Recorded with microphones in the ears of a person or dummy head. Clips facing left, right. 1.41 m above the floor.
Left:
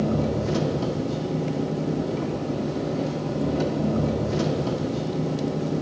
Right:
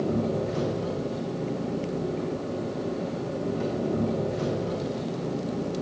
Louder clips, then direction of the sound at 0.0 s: Left 2 dB; 75° left (ahead or behind).